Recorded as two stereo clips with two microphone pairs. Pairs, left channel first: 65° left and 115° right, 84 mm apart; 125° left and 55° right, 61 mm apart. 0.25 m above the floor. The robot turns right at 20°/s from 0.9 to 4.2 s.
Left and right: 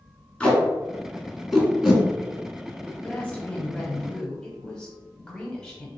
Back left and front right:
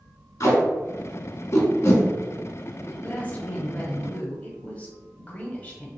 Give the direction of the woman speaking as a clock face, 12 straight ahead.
9 o'clock.